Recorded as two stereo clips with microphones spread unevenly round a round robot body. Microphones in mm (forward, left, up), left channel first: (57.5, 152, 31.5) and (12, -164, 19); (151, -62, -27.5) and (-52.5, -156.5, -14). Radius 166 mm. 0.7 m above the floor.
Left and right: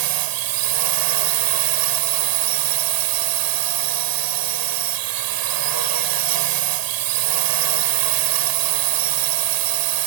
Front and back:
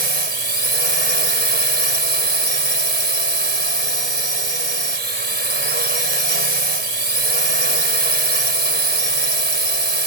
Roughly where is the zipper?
I don't hear a zipper.